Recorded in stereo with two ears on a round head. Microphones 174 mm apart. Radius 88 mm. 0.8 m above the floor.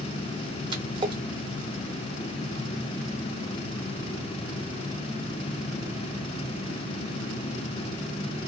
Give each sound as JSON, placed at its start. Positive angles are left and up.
{"t": 0.7, "sound": "a splash", "side_deg": -25, "distance_m": 0.8}